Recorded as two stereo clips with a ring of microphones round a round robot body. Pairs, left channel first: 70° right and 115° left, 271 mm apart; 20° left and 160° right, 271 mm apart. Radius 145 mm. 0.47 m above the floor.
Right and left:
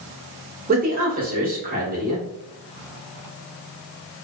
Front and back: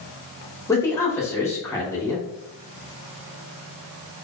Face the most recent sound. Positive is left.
turn(degrees=95)